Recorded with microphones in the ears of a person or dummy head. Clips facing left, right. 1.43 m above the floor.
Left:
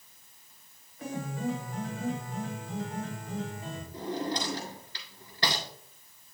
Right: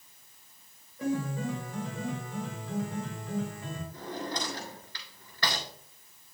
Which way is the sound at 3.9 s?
15° left (ahead or behind).